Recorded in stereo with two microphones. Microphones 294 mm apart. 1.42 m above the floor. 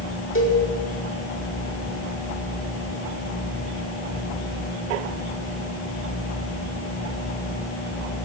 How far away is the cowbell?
About 4.5 m.